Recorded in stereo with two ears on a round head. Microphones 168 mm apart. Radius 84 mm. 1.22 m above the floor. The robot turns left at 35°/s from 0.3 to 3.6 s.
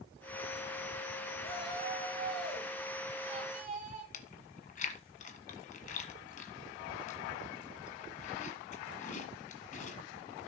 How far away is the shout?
About 7.5 m.